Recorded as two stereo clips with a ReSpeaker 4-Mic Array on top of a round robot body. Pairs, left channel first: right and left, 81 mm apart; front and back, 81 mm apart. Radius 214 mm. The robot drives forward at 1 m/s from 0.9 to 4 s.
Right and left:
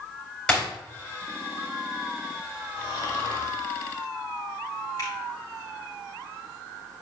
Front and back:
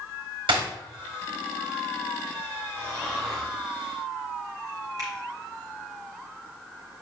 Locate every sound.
0.5 s breaking glass: 170° right, 4.5 m
2.8 s snoring: 120° right, 1.4 m; by 3.5 s 140° right, 1.9 m
5.0 s a finger snap: 140° right, 3 m